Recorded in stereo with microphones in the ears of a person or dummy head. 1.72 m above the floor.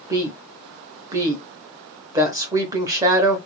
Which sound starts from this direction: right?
A woman speaking, at 0.1 s.